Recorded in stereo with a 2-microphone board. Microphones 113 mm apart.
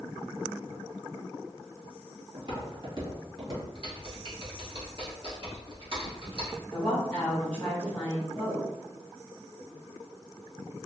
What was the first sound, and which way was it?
Footsteps, 40° right (ahead or behind).